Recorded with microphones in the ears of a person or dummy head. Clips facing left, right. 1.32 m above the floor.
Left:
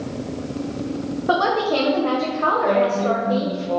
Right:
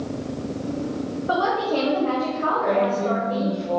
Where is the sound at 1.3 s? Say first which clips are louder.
Left 3 dB; 65° left (ahead or behind), 0.9 m.